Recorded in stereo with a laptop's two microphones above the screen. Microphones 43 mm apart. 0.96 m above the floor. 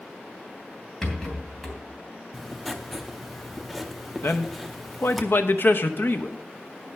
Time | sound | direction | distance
1.0 | a rattle | 10° left (ahead or behind) | 3 m
2.3 | writing | centre (ahead or behind) | 0.6 m
4.2 | a man speaking | 60° left (ahead or behind) | 0.8 m